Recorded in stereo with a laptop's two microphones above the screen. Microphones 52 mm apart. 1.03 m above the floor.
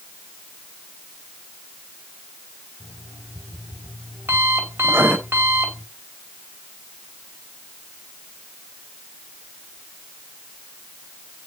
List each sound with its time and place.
2.8 s an alarm clock: 55° right (ahead or behind), 3 m
4.8 s writing: 55° right (ahead or behind), 4.5 m